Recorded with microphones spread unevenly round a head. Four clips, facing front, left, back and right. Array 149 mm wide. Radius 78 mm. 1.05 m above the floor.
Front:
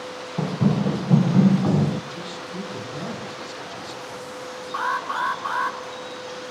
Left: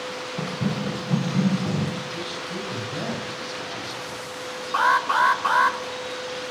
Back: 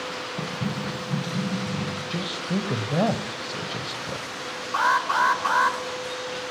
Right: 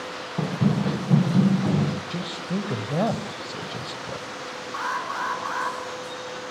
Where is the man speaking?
145° right, 5 m.